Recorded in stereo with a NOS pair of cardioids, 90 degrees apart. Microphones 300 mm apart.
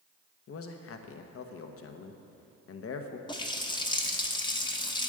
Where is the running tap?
15° left, 0.9 m.